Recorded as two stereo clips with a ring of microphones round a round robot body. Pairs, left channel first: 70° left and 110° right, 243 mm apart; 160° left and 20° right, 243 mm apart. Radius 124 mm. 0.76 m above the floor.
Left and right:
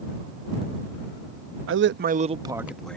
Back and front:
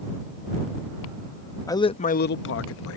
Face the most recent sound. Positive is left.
turn(degrees=150)